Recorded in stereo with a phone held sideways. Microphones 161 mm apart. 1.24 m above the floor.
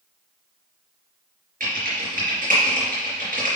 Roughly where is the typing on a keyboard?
Right.